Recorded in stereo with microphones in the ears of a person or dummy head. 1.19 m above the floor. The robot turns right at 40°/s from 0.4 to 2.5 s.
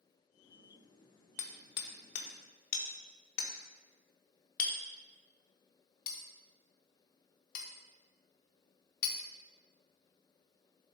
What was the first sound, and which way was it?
Hammering, 20° left (ahead or behind).